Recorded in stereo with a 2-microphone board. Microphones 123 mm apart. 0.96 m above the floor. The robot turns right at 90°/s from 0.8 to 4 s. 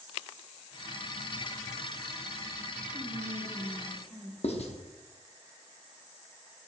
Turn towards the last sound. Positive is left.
turn(degrees=55)  # may be behind; listen again after turning